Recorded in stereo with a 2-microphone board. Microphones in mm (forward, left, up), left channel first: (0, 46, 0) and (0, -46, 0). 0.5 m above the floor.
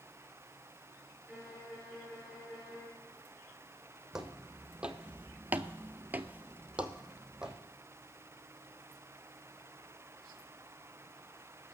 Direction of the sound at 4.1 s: 5° right (ahead or behind).